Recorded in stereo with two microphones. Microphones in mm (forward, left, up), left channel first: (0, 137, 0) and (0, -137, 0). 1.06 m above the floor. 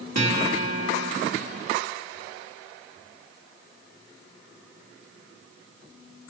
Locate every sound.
0.1 s a guitar: 65° right (ahead or behind), 2 m